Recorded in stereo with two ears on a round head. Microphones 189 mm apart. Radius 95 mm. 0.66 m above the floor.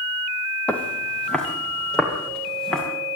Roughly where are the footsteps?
Centre.